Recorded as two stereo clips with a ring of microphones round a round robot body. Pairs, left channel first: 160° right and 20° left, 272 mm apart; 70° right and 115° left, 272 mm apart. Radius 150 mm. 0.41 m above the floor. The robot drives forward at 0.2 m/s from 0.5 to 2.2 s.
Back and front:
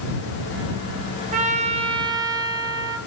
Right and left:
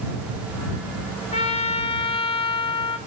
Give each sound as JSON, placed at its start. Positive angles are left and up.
{"t": 1.3, "sound": "a trumpet", "azimuth_deg": -20, "distance_m": 0.7}